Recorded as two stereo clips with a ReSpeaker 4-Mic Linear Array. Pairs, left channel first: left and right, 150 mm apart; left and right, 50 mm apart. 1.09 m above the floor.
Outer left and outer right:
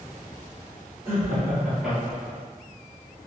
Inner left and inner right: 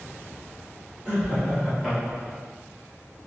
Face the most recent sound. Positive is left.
turn(degrees=10)  # may be behind; listen again after turning